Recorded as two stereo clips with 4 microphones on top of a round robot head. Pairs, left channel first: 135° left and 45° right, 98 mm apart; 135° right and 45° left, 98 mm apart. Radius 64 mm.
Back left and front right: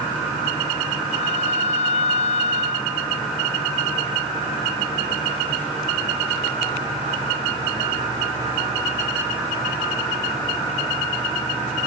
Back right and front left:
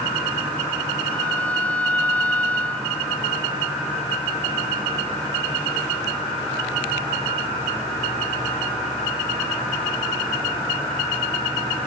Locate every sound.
1.1 s a violin: 145° left